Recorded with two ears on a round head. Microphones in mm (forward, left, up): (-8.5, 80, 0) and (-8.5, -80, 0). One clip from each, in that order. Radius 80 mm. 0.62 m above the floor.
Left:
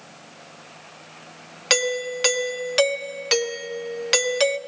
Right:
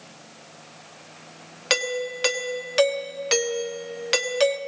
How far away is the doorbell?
About 1.0 m.